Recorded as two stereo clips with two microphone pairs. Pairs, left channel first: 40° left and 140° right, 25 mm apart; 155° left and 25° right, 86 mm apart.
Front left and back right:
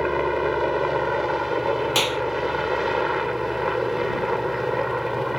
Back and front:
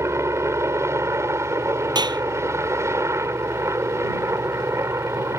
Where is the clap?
55° right.